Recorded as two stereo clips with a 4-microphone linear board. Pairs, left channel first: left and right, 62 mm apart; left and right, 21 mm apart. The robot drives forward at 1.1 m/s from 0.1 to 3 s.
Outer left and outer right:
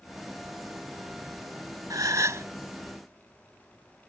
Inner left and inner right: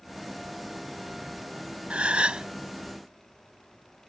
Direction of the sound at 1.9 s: 80° right.